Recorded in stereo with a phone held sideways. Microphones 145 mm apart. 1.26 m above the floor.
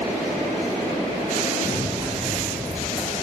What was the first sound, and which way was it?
Running footsteps, 35° right (ahead or behind).